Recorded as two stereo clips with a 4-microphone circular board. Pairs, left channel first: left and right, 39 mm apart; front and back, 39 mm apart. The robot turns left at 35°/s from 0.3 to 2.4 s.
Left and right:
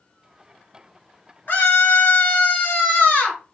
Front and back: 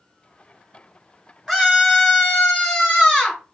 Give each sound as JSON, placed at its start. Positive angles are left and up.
{"t": 1.5, "sound": "a scream", "azimuth_deg": 105, "distance_m": 2.0}